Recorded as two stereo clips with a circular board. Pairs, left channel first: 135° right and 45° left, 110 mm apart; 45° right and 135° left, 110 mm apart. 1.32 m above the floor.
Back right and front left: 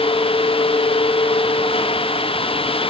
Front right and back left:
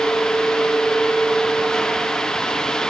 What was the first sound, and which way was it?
Only background noise.